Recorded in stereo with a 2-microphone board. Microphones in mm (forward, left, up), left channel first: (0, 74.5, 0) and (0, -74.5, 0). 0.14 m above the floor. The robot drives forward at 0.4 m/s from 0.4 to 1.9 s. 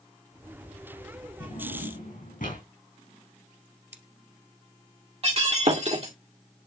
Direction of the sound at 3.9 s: 20° right (ahead or behind).